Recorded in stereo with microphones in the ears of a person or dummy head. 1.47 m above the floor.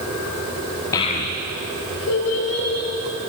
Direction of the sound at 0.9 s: 20° left (ahead or behind).